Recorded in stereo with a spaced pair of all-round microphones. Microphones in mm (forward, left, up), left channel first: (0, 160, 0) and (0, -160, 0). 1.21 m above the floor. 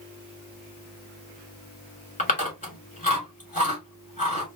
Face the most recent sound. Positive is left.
turn(degrees=20)  # may be behind; listen again after turning